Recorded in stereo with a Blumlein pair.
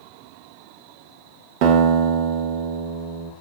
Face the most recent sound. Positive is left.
turn(degrees=-45)